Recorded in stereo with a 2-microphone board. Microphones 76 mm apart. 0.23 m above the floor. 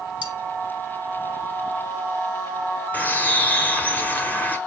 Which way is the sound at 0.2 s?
20° right (ahead or behind).